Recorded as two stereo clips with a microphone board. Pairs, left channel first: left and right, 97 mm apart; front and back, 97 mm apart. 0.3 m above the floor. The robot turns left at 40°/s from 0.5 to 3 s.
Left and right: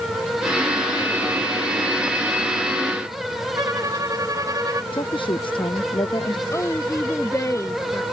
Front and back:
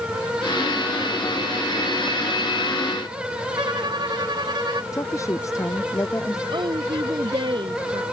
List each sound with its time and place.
3.5 s a violin: 145° right
4.9 s a woman speaking: 60° left
6.5 s a woman speaking: 145° left